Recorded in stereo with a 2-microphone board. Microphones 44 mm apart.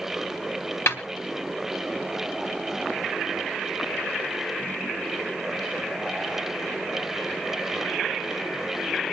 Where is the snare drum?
65° left (ahead or behind), 3 m.